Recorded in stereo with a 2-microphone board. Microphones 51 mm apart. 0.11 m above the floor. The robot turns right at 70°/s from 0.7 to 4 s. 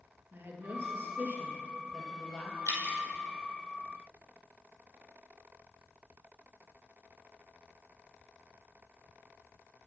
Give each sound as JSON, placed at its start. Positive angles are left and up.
{"t": 0.3, "sound": "a woman speaking", "azimuth_deg": -90, "distance_m": 2.0}
{"t": 2.7, "sound": "dripping", "side_deg": 70, "distance_m": 1.4}